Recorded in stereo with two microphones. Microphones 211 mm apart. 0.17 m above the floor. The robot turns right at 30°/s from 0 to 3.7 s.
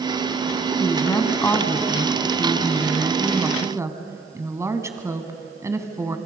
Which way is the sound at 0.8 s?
15° left (ahead or behind).